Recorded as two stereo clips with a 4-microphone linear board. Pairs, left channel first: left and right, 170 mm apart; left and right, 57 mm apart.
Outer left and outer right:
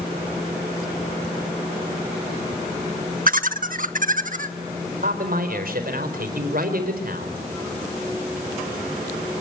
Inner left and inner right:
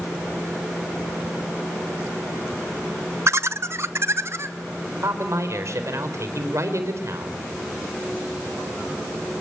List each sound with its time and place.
3.3 s laughter: 55° right (ahead or behind), 1.0 m; by 4.5 s 50° right (ahead or behind), 1.9 m
5.0 s a man speaking: 60° right (ahead or behind), 4.5 m